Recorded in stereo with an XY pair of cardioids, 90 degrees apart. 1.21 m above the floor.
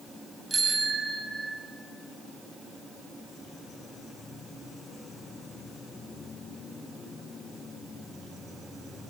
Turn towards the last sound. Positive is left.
turn(degrees=-35)